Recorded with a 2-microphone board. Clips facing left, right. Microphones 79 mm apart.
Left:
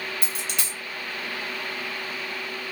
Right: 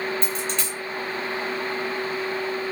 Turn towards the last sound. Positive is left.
turn(degrees=5)  # may be behind; listen again after turning